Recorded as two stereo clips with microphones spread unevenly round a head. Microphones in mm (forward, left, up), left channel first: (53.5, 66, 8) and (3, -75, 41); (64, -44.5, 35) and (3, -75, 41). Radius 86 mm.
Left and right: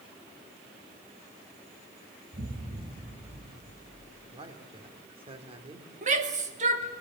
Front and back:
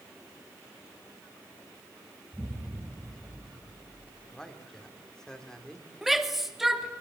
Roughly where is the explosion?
Right.